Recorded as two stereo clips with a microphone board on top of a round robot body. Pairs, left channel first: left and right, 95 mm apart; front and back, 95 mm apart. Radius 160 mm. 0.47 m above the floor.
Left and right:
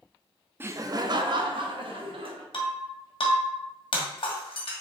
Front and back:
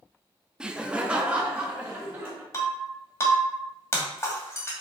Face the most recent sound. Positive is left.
turn(degrees=65)